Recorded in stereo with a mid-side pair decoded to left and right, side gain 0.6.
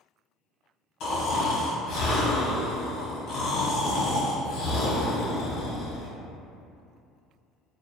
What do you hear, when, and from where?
1.0 s snoring: 50° left, 1.0 m